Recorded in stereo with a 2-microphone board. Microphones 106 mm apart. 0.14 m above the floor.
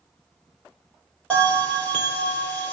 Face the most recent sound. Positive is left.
turn(degrees=15)  # may be behind; listen again after turning